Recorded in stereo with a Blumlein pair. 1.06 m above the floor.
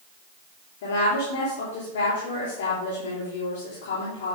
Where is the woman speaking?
55° left, 3 m.